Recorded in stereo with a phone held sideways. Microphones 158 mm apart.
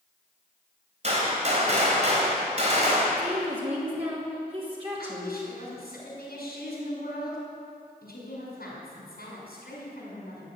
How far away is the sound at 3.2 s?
About 2.5 m.